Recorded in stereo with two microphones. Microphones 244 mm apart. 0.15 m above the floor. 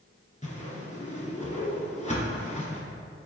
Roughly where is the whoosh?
Left.